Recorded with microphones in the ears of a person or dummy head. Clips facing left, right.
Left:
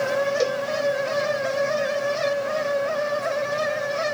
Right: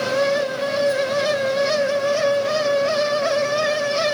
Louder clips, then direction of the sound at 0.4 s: Left 1 dB; 65° left (ahead or behind).